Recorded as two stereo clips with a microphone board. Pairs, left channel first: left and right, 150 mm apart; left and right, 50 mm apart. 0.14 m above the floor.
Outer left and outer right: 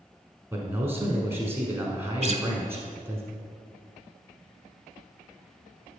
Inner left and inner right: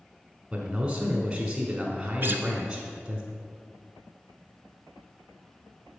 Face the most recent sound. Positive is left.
turn(degrees=-50)  # may be behind; listen again after turning